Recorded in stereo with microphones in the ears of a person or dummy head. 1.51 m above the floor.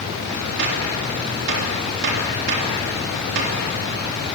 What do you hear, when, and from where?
0.6 s a gunshot: 65° right (ahead or behind), 3.5 m